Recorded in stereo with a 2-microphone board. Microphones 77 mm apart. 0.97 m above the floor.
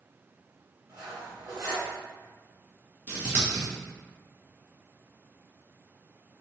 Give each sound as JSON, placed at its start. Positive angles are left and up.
{"t": 0.9, "sound": "cutlery clinking", "side_deg": -50, "distance_m": 1.5}
{"t": 3.1, "sound": "scissors", "side_deg": -20, "distance_m": 1.0}